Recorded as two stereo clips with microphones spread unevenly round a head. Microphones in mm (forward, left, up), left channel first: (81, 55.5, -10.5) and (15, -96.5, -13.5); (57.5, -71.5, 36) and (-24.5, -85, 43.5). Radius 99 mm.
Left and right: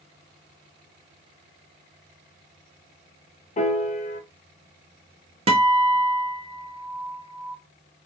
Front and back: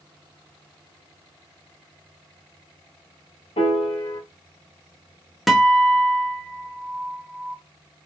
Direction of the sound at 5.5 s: 90° right.